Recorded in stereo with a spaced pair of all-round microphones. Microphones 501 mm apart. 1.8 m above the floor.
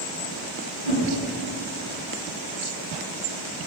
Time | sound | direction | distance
0.8 | a whoosh | 75° right (ahead or behind) | 5 m